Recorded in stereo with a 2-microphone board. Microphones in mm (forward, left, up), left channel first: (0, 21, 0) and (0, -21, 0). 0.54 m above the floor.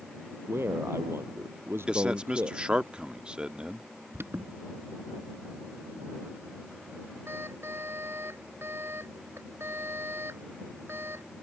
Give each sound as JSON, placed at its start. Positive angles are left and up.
{"t": 0.5, "sound": "a man speaking", "side_deg": -80}
{"t": 1.9, "sound": "a man speaking", "side_deg": -25}
{"t": 4.1, "sound": "an alarm", "side_deg": -80}